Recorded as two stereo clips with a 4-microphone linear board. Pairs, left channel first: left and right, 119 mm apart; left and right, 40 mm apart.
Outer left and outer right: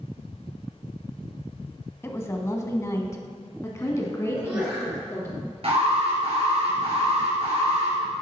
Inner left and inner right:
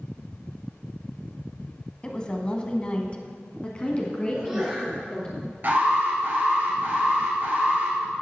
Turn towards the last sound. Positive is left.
turn(degrees=-55)  # may be behind; listen again after turning